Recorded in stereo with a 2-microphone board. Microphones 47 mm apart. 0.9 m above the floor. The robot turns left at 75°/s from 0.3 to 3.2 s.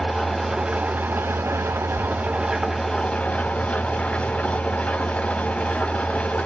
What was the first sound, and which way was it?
An engine running, 10° left.